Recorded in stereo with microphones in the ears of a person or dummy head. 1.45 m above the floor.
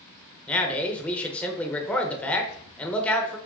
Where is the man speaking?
10° left (ahead or behind), 0.7 m.